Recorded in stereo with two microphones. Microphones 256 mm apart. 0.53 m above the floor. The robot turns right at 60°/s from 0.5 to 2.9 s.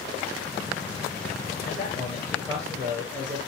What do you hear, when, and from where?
1.6 s a man speaking: 135° left, 8.5 m; by 3.4 s 150° right, 8.5 m